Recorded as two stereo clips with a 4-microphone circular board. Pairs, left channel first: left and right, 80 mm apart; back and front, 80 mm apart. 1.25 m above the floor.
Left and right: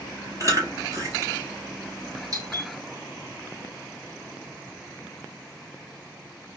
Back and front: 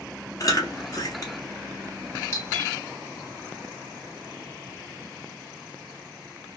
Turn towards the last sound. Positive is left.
turn(degrees=-130)